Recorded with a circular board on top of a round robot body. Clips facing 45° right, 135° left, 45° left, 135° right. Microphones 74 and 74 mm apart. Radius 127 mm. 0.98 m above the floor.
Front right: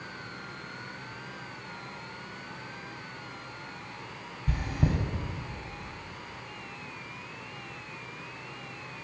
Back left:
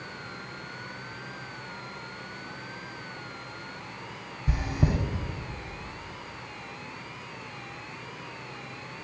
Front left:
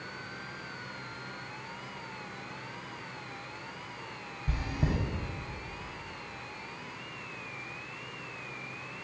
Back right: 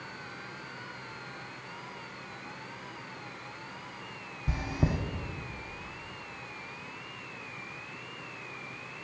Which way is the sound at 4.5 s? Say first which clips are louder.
Back left 2 dB, back right 2 dB; 150° right.